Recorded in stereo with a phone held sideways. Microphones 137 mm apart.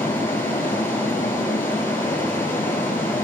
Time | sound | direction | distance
0.0 | running water | 15° left (ahead or behind) | 6 m